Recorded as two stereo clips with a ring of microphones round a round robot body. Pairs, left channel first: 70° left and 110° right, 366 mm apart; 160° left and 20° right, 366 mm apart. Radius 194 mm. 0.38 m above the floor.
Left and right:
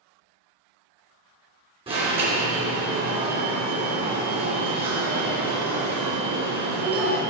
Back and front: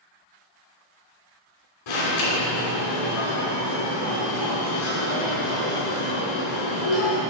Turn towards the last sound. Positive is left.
turn(degrees=170)